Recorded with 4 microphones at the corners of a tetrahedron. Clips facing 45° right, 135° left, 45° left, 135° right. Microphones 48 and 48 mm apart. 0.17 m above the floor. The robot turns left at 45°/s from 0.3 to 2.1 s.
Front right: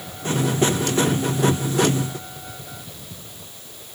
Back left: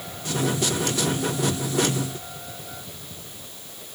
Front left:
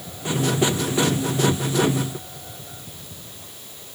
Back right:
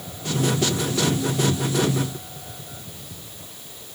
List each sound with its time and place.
Only background noise.